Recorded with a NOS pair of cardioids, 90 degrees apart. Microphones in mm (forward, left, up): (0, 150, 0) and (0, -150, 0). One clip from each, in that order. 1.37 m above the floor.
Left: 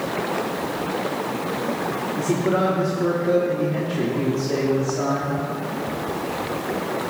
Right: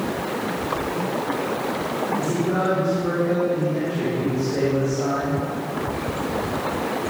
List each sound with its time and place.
2.2 s a man speaking: 50° left, 4 m